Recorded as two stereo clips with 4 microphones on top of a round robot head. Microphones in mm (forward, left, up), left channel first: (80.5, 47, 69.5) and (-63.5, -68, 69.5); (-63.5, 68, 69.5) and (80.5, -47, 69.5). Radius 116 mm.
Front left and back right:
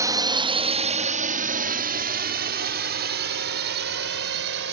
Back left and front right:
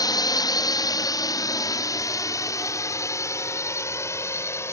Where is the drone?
175° left; by 4.7 s 145° right.